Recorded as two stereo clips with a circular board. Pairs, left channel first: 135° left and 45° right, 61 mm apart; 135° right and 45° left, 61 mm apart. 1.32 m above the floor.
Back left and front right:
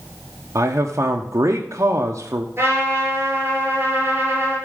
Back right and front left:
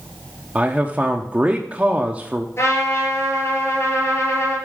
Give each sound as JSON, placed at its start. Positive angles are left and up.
{"t": 0.6, "sound": "a man speaking", "azimuth_deg": -20, "distance_m": 0.7}
{"t": 2.6, "sound": "a trumpet", "azimuth_deg": -95, "distance_m": 5.0}